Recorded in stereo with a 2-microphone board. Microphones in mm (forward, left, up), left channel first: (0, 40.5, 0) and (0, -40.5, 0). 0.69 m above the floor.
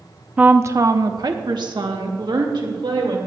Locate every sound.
0.4 s a woman speaking: 15° right (ahead or behind), 0.5 m; by 3.2 s 70° right (ahead or behind), 2.5 m